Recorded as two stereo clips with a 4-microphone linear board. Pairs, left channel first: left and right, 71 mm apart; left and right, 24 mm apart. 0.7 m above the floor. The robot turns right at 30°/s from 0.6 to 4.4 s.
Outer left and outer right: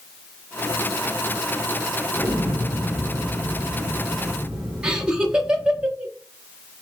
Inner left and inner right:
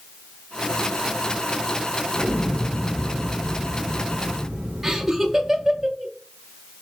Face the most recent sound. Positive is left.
turn(degrees=-15)  # may be behind; listen again after turning